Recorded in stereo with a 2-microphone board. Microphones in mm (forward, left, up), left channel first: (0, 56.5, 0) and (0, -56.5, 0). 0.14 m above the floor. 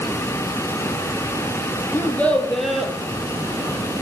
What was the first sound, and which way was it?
A child speaking, 20° left (ahead or behind).